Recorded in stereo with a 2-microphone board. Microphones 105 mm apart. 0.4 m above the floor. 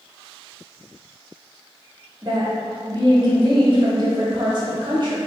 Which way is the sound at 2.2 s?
45° right (ahead or behind).